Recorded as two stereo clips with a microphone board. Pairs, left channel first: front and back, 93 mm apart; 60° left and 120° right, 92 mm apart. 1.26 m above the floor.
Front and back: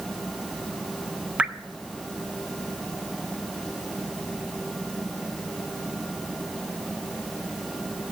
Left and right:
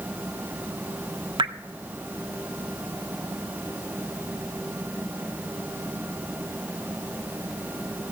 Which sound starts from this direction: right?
Dripping, at 1.4 s.